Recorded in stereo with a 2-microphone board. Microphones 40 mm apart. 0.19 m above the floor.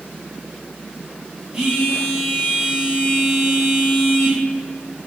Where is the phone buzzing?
20° right (ahead or behind), 1.3 m.